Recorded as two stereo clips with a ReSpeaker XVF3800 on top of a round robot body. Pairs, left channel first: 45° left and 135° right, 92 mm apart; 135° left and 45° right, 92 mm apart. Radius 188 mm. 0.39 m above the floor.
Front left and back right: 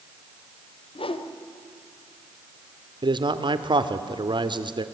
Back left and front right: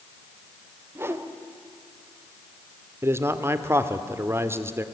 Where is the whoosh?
20° left, 1.2 m.